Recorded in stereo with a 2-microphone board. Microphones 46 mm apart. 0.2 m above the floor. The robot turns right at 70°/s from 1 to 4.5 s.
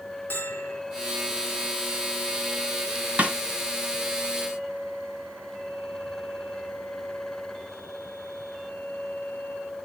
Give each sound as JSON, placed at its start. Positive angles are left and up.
{"t": 0.3, "sound": "a bell", "side_deg": 50, "distance_m": 2.5}
{"t": 3.2, "sound": "a snare drum", "side_deg": -30, "distance_m": 1.6}